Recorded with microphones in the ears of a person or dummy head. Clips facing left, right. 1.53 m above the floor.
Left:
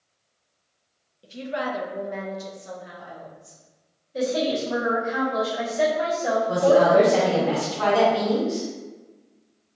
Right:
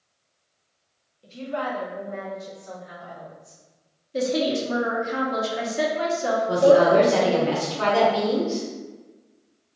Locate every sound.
1.2 s a woman speaking: 15° left (ahead or behind), 0.6 m; by 3.6 s 70° left (ahead or behind), 1.1 m
4.1 s a woman speaking: 65° right (ahead or behind), 0.8 m
6.5 s a woman speaking: 35° right (ahead or behind), 1.3 m